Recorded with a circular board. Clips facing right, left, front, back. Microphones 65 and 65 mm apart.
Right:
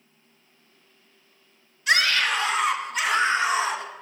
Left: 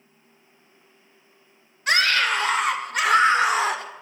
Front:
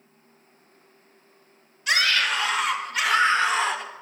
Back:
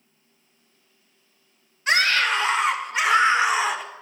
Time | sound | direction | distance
1.9 | a scream | 130° left | 2.0 m